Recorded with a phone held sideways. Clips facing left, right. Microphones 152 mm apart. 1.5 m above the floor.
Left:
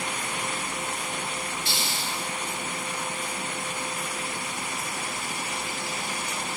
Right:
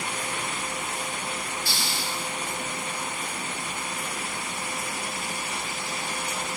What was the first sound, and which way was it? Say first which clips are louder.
A hiss: even; 20° left (ahead or behind).